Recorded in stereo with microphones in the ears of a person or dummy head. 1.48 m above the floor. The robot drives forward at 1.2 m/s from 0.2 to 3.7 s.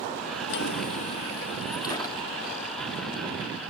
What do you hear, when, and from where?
0.5 s a drawer: 55° left (ahead or behind), 0.9 m; by 2.4 s 15° left (ahead or behind), 2.5 m